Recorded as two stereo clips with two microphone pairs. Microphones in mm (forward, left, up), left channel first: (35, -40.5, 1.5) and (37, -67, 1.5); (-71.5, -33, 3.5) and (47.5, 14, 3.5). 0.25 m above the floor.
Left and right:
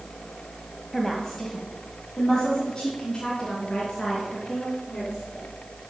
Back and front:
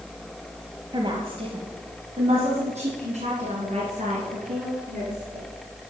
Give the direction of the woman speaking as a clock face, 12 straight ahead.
12 o'clock.